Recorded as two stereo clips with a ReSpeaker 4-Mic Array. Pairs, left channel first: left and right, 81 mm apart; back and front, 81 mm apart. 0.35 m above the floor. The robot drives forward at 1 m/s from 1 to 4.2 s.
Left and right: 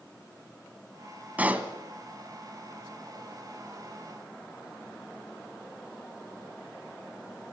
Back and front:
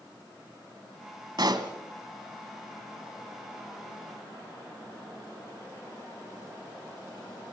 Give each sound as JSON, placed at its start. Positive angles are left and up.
{"t": 1.4, "sound": "a pop", "azimuth_deg": -20, "distance_m": 1.8}